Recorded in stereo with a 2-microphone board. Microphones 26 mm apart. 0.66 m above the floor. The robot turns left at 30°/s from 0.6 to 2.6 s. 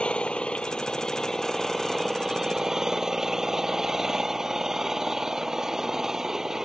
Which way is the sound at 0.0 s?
40° left.